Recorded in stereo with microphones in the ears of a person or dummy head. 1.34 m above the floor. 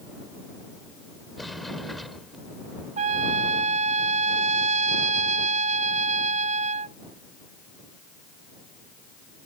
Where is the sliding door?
Centre (ahead or behind).